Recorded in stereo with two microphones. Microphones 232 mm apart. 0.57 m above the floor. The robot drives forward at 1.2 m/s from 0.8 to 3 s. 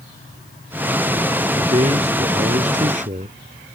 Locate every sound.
1.6 s a man speaking: 30° right (ahead or behind); by 3.4 s 35° right (ahead or behind)